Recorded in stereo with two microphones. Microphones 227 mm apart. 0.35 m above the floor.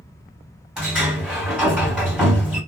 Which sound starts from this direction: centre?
A sliding door, at 0.8 s.